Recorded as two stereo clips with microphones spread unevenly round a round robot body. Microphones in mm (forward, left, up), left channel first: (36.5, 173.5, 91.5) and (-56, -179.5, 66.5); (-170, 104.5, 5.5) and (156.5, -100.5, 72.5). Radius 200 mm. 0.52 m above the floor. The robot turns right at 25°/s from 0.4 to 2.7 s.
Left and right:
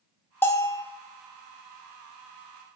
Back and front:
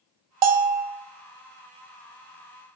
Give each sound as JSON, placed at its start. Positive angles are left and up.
{"t": 0.4, "sound": "a bell", "azimuth_deg": -10, "distance_m": 0.7}